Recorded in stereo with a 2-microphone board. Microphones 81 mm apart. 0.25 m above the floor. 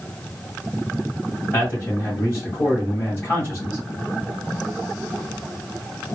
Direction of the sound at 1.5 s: 20° left (ahead or behind).